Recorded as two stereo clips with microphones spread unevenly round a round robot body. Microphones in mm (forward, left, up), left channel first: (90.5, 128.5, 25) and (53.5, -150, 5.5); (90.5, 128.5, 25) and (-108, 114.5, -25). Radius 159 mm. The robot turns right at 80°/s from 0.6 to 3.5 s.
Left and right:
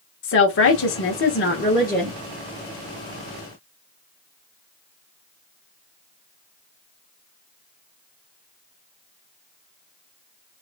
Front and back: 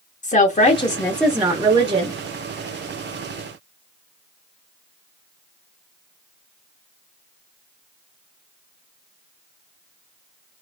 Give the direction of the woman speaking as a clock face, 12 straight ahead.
10 o'clock.